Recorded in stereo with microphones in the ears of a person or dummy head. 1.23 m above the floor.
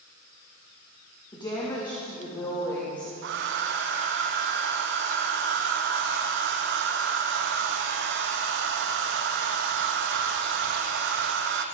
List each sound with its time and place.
1.3 s a woman speaking: 25° left (ahead or behind), 2.5 m
3.2 s a hair dryer: 65° right (ahead or behind), 0.9 m